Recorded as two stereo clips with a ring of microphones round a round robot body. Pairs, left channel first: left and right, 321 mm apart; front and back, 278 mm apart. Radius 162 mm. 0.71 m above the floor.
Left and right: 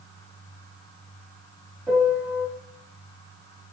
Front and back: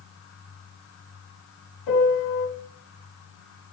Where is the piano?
5° right, 0.9 m.